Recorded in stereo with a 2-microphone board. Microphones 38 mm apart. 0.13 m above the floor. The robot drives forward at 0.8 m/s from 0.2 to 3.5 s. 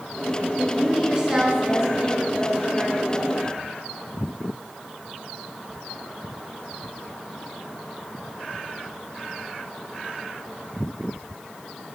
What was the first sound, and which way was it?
A woman speaking, 15° right (ahead or behind).